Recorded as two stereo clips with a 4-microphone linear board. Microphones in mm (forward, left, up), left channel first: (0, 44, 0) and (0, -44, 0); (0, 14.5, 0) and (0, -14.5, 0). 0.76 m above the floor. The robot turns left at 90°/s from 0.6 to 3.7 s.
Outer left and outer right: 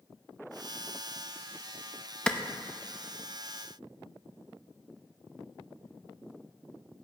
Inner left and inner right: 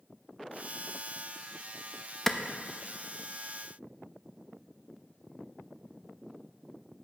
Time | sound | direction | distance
2.3 | a clap | 10° left (ahead or behind) | 0.5 m